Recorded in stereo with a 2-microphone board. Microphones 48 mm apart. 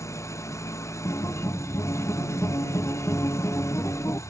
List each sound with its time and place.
0.0 s an engine running: 85° left
1.1 s a guitar: 70° left (ahead or behind)